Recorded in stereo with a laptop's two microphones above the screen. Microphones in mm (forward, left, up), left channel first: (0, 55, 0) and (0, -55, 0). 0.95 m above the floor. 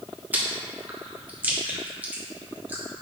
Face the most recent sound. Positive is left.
turn(degrees=-15)  # may be behind; listen again after turning